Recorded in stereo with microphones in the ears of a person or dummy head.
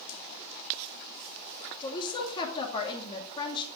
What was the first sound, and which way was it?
A woman speaking, 30° left (ahead or behind).